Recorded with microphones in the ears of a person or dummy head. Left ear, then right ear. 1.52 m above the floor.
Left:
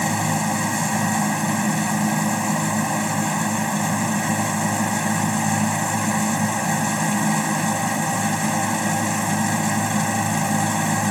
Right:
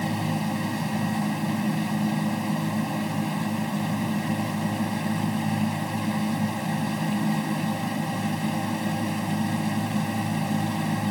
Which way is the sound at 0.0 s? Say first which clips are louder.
Left 7 dB; 40° left (ahead or behind).